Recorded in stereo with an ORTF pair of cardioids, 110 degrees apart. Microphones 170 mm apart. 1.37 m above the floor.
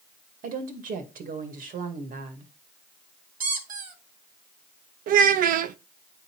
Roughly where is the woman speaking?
Ahead right.